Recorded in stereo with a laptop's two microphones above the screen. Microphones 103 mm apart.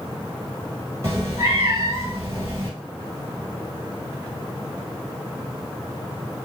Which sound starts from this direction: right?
A cat meowing, at 1.0 s.